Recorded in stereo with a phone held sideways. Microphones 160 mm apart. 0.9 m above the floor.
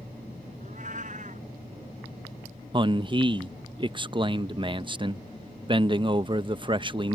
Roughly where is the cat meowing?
Right.